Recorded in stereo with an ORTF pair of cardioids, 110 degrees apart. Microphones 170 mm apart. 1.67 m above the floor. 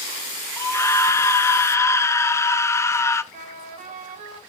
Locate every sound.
0.6 s a scream: 20° left, 1.5 m
3.3 s a trumpet: 55° right, 4 m